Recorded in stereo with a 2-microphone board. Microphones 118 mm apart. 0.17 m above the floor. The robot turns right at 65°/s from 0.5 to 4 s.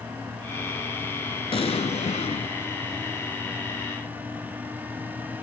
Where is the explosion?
55° left, 0.7 m; by 2.5 s 120° left, 0.7 m.